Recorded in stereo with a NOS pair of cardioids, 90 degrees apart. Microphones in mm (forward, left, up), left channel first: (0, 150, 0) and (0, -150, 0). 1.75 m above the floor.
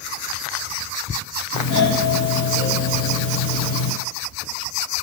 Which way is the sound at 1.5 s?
60° left.